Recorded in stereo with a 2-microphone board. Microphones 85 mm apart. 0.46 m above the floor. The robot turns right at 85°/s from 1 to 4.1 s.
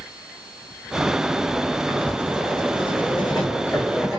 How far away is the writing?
About 7.5 m.